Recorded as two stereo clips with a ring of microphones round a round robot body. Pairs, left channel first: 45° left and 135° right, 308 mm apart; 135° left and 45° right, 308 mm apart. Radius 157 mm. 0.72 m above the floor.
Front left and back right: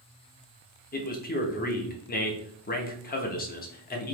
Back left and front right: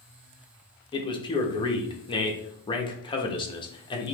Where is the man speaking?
75° left, 0.8 m.